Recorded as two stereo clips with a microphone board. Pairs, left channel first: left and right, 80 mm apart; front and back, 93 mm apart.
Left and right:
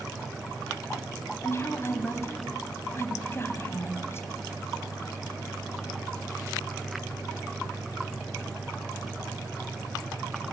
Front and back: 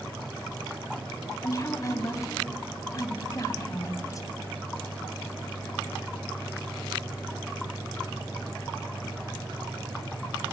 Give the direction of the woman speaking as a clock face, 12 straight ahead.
11 o'clock.